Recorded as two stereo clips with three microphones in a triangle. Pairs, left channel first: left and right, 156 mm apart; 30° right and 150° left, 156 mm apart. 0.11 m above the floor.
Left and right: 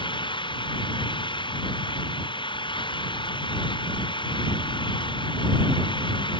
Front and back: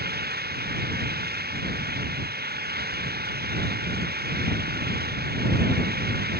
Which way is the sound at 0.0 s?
150° left.